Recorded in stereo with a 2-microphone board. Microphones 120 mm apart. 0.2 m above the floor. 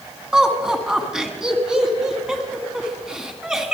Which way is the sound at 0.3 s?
5° right (ahead or behind).